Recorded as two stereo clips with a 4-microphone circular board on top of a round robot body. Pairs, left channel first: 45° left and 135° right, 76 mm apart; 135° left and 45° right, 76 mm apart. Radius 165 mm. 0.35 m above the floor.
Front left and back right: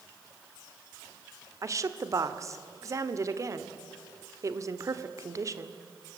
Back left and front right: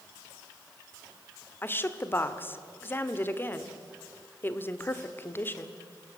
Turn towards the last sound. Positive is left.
turn(degrees=-170)